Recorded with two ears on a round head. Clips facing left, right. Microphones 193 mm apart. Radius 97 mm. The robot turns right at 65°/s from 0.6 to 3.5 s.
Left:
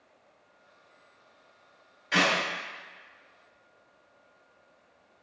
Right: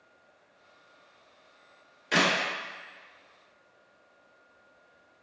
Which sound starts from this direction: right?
A clap, at 2.1 s.